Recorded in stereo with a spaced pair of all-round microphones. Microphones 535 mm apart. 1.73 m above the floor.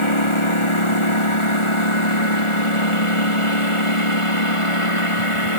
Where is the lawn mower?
60° left (ahead or behind); by 5.6 s 70° left (ahead or behind).